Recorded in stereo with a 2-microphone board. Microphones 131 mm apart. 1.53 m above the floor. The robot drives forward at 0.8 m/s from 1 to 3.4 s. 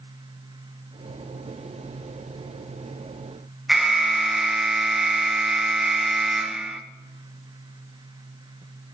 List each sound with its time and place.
3.7 s an alarm: 5° right (ahead or behind), 1.8 m